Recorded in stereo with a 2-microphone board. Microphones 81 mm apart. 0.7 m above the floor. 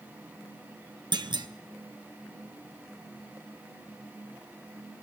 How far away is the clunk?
About 0.5 m.